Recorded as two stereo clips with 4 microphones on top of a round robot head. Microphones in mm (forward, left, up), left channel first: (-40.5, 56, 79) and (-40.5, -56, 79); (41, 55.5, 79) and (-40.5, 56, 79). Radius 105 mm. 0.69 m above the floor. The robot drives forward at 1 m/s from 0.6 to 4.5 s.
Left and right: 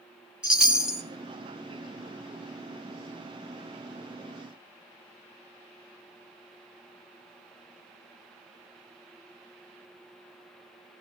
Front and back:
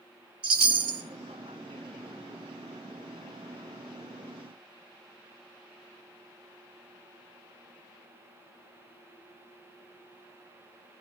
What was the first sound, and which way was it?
A chime, 175° right.